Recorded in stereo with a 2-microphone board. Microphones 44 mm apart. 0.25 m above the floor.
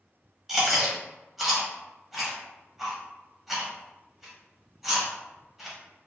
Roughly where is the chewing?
Centre.